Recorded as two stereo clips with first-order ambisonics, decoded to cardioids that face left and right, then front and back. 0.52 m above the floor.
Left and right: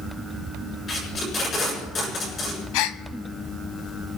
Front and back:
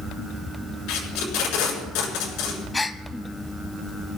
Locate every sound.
0.9 s tape being pulled: 25° left, 7 m
2.7 s a gasp: 75° left, 0.9 m